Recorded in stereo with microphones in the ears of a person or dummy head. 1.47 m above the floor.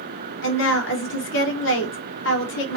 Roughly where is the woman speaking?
Left.